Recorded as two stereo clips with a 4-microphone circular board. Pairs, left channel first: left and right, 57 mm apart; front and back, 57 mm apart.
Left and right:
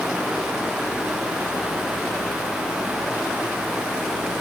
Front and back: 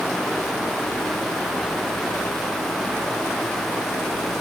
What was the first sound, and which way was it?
Only background noise.